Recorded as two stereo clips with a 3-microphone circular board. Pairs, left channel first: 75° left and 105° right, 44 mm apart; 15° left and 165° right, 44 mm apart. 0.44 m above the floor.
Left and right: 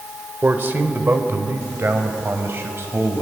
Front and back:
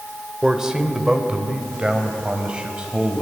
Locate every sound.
0.4 s a man speaking: 90° right, 2 m; by 3.2 s 100° right, 3.5 m